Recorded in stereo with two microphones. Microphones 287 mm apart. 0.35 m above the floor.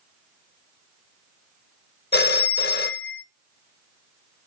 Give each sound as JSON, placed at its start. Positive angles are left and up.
{"t": 2.1, "sound": "a phone ringing", "side_deg": 35, "distance_m": 0.6}